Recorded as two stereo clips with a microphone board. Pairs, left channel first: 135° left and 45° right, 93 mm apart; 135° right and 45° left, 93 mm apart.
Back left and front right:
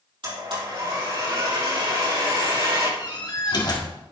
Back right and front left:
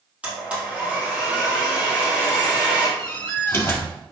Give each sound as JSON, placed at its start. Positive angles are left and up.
{"t": 0.2, "sound": "a blender", "azimuth_deg": -30, "distance_m": 4.0}
{"t": 3.0, "sound": "a door slam", "azimuth_deg": 165, "distance_m": 1.7}